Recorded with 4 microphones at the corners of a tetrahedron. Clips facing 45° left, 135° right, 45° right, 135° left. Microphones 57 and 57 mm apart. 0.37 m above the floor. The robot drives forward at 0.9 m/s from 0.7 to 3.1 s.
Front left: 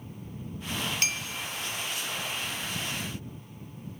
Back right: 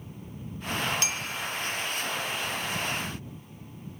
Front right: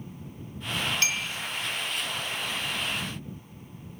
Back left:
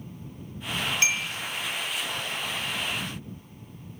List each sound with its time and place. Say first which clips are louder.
1.0 s a clink: even, back left 2 dB; 70° left, 0.8 m; by 1.3 s 95° left, 0.7 m